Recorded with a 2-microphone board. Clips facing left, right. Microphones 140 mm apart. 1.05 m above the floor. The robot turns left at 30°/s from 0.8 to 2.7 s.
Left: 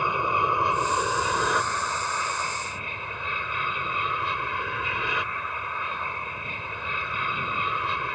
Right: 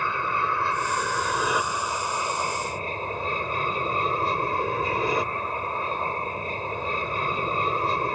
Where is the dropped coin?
No dropped coin in this recording.